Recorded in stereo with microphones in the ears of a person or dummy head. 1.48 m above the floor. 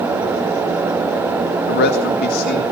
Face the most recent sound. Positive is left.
turn(degrees=50)  # may be behind; listen again after turning